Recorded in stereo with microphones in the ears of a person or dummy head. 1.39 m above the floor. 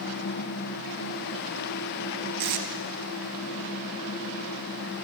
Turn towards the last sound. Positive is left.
turn(degrees=-50)  # may be behind; listen again after turning